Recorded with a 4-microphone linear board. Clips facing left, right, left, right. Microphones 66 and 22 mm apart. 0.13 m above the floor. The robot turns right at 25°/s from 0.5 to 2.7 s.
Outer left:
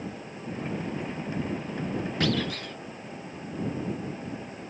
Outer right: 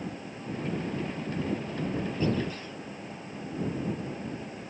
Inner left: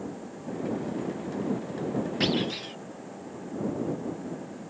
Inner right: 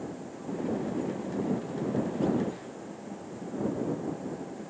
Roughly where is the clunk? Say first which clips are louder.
Outer left 2 dB, inner left 2 dB; left.